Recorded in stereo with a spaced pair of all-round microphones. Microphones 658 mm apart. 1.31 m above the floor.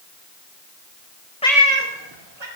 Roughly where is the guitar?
No guitar in this recording.